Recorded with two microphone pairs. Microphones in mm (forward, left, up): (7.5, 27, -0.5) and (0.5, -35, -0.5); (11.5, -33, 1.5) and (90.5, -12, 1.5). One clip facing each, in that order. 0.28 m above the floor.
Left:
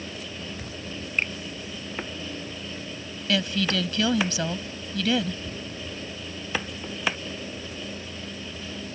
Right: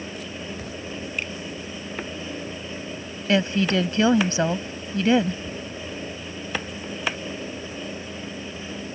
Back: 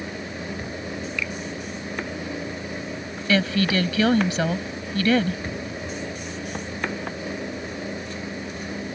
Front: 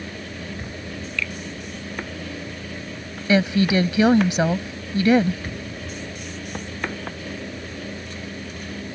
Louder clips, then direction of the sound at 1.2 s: Left 5 dB, front 4 dB; 125° left.